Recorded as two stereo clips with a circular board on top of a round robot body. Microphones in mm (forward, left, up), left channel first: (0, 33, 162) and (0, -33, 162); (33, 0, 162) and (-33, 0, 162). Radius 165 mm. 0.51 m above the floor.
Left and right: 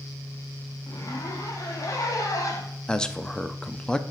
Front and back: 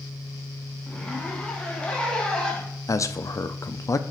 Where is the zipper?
75° left, 1.7 m.